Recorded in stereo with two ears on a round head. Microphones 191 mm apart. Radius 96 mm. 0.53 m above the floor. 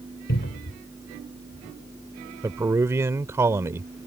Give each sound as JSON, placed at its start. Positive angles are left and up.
{"t": 0.3, "sound": "a cupboard door", "side_deg": 50}
{"t": 2.4, "sound": "a man speaking", "side_deg": -15}